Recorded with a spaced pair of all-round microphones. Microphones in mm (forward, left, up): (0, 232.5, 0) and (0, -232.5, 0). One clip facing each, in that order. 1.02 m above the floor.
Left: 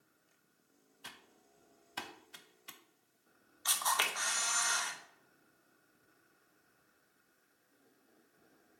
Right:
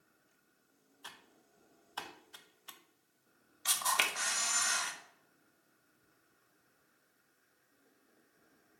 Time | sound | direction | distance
1.0 | typing on a keyboard | 45° left (ahead or behind) | 0.8 m
3.6 | a camera shutter | 45° right (ahead or behind) | 1.2 m